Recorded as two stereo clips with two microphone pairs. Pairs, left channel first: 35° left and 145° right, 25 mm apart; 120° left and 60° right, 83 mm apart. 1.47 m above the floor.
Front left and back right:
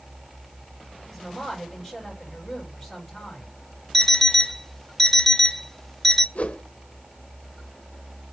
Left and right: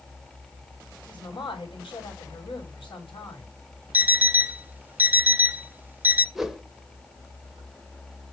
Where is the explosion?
I don't hear an explosion.